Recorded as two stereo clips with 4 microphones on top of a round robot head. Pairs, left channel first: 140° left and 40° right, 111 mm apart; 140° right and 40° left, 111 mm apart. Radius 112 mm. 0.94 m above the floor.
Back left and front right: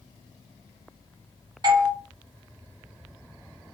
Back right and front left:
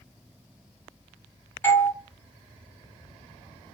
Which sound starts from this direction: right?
A doorbell, at 1.6 s.